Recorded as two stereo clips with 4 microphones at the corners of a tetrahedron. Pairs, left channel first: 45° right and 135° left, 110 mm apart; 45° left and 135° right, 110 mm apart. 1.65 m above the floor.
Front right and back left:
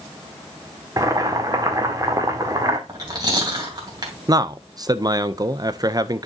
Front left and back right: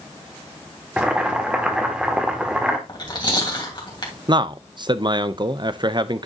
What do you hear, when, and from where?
1.0 s boiling: 150° left, 1.4 m
2.9 s chewing: 90° left, 3 m
4.3 s a man speaking: 175° right, 0.6 m